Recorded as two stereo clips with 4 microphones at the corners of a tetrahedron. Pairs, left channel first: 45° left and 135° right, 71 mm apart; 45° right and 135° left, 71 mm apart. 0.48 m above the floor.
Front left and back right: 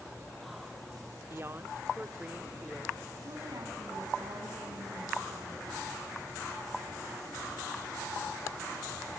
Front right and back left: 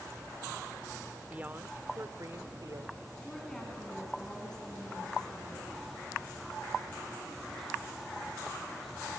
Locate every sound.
1.3 s a woman speaking: 165° right, 1.0 m; by 3.0 s 145° left, 1.4 m
3.2 s a woman speaking: 125° right, 4.5 m